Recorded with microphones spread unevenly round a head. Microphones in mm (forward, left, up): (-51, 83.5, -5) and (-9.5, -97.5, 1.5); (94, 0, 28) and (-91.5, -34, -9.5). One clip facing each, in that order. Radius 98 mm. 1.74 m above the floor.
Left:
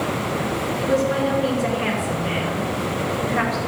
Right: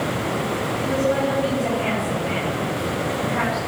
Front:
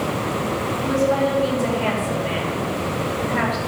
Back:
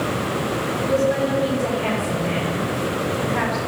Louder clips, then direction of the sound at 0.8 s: Left 1 dB, even; 60° left.